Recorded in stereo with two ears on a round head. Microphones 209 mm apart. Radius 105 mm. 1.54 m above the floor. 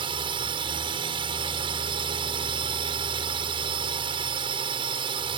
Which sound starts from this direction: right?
A drone, at 0.0 s.